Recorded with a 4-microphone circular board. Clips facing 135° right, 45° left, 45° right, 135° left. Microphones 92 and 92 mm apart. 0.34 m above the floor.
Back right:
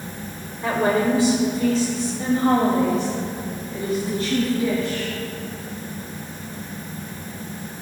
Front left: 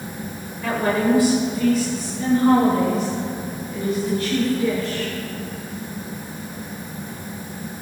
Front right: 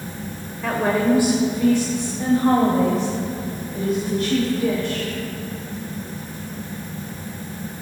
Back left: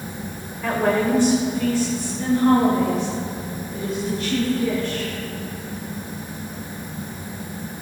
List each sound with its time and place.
0.6 s a woman speaking: 135° right, 1.5 m; by 5.2 s 80° right, 3 m